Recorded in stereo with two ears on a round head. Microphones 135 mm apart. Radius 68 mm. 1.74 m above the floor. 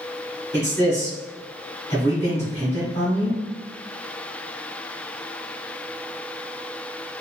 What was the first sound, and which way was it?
A man speaking, 20° left (ahead or behind).